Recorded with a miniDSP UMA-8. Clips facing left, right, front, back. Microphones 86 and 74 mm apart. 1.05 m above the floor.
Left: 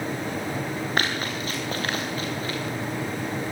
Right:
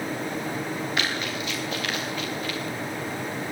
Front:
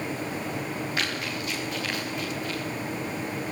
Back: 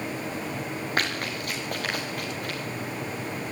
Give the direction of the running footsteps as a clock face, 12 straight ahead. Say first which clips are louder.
Left 2 dB, back 1 dB; 7 o'clock.